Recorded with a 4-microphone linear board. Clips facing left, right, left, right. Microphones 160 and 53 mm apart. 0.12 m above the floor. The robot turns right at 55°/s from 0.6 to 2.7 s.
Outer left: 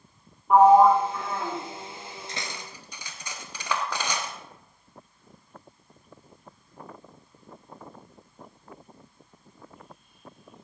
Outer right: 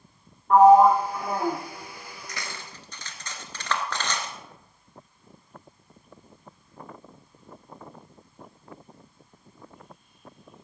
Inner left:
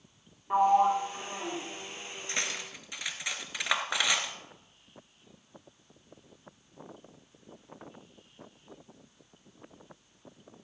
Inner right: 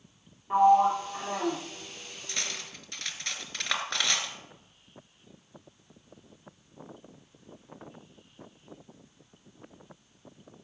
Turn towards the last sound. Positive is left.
turn(degrees=10)  # may be behind; listen again after turning